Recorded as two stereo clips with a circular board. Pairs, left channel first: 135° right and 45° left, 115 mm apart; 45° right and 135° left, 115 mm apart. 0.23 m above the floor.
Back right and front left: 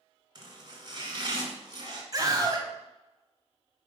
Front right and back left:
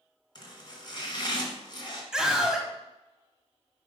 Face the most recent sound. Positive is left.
turn(degrees=55)